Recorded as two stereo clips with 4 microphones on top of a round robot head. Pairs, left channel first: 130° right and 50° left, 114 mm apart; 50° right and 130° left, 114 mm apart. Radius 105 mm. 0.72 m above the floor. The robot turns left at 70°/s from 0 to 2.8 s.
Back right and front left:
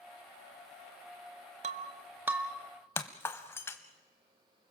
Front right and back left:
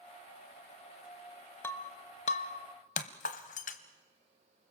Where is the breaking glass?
20° left, 0.8 m; by 3.8 s 60° right, 0.8 m.